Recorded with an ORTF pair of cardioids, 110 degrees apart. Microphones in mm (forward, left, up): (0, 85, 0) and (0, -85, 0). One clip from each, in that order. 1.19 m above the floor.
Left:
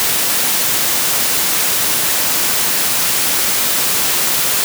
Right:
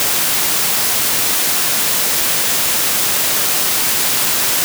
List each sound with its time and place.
Only background noise.